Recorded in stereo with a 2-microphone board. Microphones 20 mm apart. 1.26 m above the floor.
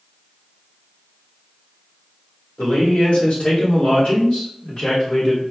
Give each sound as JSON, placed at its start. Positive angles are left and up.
{"t": 2.6, "sound": "a man speaking", "side_deg": 75, "distance_m": 1.3}